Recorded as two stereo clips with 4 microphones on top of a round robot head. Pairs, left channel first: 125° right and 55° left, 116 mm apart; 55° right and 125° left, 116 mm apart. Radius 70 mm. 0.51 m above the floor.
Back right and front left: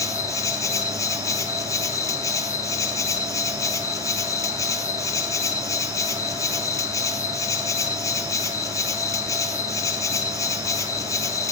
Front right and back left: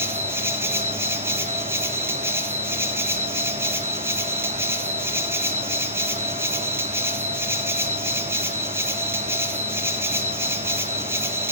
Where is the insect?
175° right, 1.2 m.